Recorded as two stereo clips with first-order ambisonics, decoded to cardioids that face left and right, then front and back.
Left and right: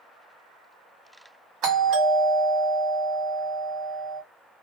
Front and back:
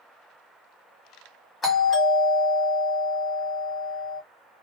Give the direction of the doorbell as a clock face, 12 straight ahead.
2 o'clock.